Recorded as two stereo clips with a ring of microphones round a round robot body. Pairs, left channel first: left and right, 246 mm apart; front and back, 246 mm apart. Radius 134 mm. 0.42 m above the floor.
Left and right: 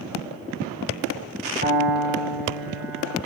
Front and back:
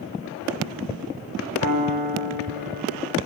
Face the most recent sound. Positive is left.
turn(degrees=-150)